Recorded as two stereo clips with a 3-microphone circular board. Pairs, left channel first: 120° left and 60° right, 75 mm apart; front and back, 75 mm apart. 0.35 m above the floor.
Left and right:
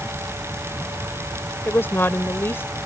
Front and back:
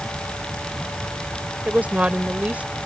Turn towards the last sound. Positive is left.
turn(degrees=130)